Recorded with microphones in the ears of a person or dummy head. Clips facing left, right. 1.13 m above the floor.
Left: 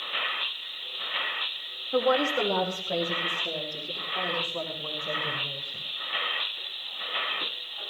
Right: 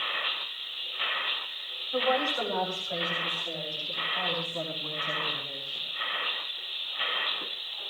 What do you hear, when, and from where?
1.9 s a woman speaking: 55° left (ahead or behind), 2 m